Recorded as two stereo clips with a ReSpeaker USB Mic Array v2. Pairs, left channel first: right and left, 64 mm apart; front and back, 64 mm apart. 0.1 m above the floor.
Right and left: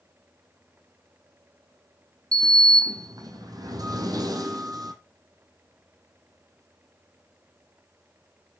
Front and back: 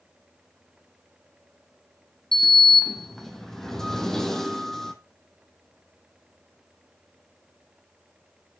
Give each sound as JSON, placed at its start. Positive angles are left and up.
{"t": 2.3, "sound": "a sliding door", "azimuth_deg": 85, "distance_m": 1.5}